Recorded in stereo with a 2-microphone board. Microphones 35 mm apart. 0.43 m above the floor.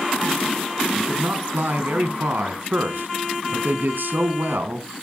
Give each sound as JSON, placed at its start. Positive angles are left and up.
{"t": 0.9, "sound": "a man speaking", "side_deg": -75, "distance_m": 3.5}